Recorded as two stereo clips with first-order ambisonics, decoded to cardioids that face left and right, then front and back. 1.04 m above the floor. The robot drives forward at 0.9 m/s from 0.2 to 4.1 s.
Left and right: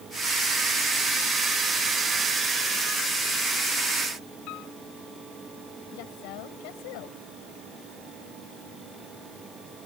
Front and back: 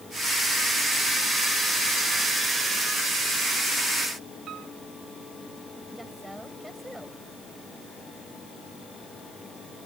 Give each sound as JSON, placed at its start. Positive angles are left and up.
{"t": 4.5, "sound": "a piano", "azimuth_deg": 125}
{"t": 5.9, "sound": "a woman speaking", "azimuth_deg": 95}